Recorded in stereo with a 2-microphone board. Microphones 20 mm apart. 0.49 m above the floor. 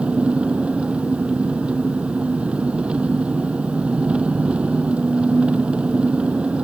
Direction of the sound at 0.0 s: 80° right.